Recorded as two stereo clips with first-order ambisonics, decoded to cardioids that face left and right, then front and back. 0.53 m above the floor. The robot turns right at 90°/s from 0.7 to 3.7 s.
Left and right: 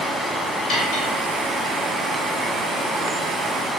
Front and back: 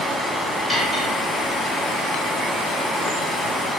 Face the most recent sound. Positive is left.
turn(degrees=0)